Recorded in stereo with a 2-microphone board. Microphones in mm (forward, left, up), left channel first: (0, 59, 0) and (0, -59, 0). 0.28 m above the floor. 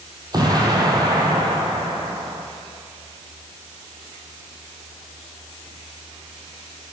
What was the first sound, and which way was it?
An explosion, 35° right (ahead or behind).